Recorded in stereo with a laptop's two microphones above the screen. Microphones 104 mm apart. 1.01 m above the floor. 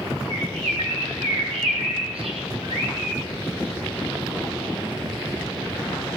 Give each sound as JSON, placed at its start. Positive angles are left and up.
{"t": 0.3, "sound": "a bird", "side_deg": -75, "distance_m": 6.5}